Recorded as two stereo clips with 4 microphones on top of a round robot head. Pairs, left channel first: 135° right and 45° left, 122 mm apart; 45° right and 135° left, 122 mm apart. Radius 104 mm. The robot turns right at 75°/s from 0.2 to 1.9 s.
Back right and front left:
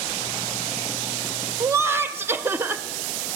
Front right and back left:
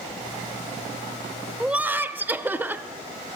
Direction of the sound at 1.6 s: 60° left.